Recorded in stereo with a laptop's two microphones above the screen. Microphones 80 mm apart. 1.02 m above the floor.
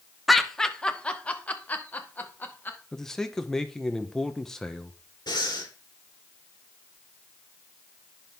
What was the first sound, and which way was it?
Laughter, centre (ahead or behind).